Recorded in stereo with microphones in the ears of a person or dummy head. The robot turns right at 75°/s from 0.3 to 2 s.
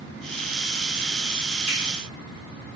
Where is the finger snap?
10° right (ahead or behind), 1.4 m; by 1.8 s centre (ahead or behind), 1.4 m.